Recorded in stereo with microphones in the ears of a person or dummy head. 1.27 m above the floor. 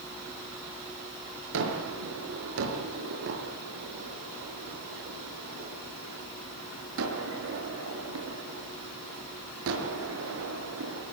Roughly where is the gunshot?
Right.